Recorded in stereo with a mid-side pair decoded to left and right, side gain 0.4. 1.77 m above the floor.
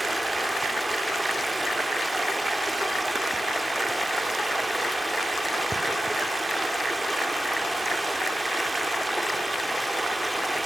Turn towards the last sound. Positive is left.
turn(degrees=-15)